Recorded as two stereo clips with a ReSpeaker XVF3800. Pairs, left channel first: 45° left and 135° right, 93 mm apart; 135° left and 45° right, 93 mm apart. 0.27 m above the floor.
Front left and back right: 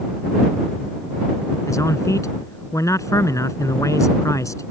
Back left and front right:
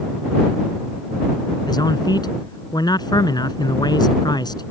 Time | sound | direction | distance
1.7 | a man speaking | 100° left | ?